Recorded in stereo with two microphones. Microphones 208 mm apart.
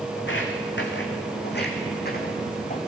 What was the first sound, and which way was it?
Footsteps, 70° left (ahead or behind).